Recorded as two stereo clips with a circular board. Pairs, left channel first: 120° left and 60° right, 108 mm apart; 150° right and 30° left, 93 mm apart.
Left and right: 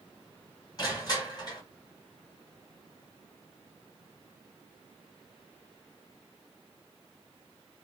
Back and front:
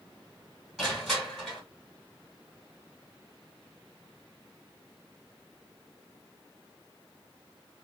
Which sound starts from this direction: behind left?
Crushing, at 0.8 s.